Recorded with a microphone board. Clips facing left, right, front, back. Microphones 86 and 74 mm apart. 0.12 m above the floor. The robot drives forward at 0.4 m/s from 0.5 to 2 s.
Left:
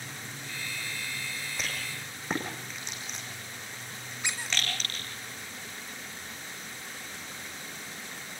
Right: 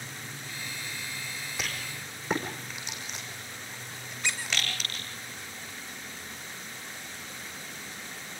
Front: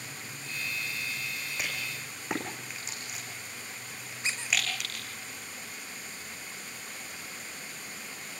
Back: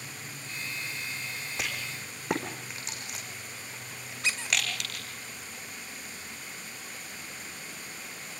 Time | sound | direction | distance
1.6 | a rattle | 175° right | 5.5 m
4.2 | a squeak | 165° left | 4 m